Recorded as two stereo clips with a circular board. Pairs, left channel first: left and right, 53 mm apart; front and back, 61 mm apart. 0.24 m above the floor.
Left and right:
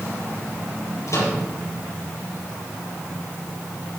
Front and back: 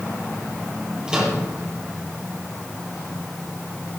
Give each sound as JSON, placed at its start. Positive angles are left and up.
{"t": 1.1, "sound": "a microwave", "azimuth_deg": 105, "distance_m": 5.0}